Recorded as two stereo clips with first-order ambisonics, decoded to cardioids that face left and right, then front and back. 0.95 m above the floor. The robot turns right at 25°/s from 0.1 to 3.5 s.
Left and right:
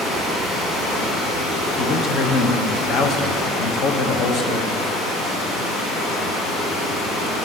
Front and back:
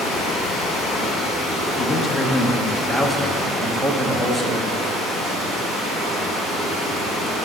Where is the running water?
30° left, 2.5 m; by 7.5 s 115° left, 2.5 m.